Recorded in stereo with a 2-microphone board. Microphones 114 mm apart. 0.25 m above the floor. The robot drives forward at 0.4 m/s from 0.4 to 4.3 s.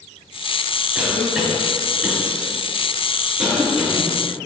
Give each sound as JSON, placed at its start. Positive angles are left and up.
{"t": 0.9, "sound": "a cough", "side_deg": -5, "distance_m": 1.4}